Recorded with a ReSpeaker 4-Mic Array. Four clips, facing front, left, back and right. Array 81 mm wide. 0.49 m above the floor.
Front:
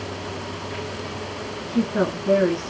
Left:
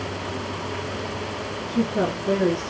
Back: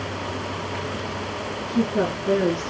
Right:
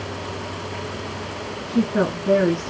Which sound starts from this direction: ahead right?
A woman speaking, at 1.7 s.